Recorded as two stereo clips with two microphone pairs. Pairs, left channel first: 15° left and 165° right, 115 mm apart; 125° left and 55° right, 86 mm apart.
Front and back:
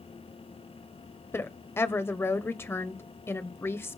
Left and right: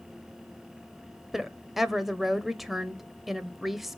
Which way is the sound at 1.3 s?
30° left.